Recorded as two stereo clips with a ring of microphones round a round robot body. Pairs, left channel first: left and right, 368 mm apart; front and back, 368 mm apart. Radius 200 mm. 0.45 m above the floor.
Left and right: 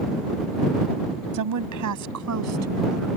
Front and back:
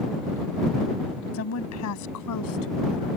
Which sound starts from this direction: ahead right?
A woman speaking, at 1.3 s.